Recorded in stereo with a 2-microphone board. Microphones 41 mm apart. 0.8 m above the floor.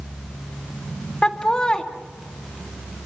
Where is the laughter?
20° left (ahead or behind), 1.7 m.